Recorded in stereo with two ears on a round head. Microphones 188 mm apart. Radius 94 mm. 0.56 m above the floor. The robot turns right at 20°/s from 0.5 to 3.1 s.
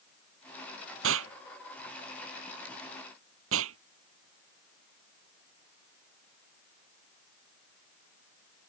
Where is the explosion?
70° right (ahead or behind).